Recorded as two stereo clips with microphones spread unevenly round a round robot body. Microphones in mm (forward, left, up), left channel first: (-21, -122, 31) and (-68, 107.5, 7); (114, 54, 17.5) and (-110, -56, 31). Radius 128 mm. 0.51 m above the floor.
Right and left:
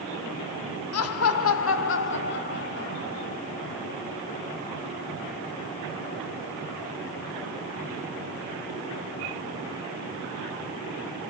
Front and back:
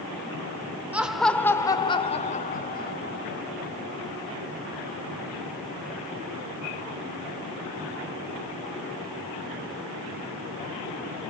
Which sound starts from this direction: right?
Laughter, at 0.9 s.